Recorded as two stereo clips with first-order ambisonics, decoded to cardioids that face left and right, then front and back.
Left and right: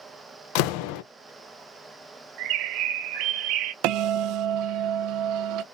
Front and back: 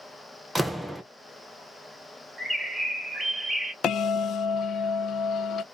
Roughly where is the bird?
Right.